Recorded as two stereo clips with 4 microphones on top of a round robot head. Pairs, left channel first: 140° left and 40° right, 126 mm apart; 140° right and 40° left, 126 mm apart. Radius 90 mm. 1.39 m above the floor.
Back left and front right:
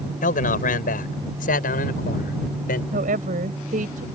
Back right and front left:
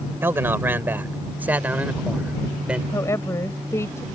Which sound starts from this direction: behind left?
A man speaking, at 0.2 s.